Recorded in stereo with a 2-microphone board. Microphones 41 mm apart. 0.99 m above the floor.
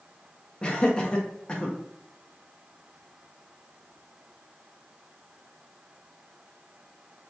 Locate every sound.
0.6 s laughter: 25° left (ahead or behind), 0.7 m